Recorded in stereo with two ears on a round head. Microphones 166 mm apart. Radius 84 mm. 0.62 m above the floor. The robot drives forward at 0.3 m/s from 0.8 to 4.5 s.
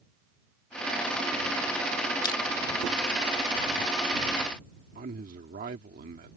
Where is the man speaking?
50° right (ahead or behind).